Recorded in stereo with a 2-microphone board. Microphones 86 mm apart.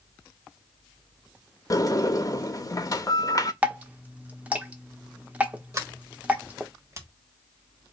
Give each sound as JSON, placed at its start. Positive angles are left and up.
{"t": 1.7, "sound": "a sliding door", "side_deg": 45, "distance_m": 0.6}
{"t": 3.6, "sound": "dripping", "side_deg": -15, "distance_m": 0.9}
{"t": 5.7, "sound": "a sliding door", "side_deg": -35, "distance_m": 1.3}